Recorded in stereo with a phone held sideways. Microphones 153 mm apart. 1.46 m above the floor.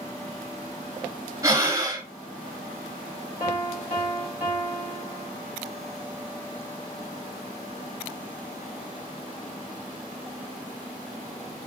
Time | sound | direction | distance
1.4 | breathing | 20° right (ahead or behind) | 1.3 m
3.4 | a piano | 55° left (ahead or behind) | 2 m